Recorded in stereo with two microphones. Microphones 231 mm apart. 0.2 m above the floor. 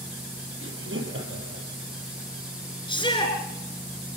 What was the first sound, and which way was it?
Laughter, 60° right (ahead or behind).